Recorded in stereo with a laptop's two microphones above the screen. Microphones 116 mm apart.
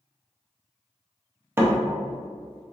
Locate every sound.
1.6 s a door slam: 20° right (ahead or behind), 0.6 m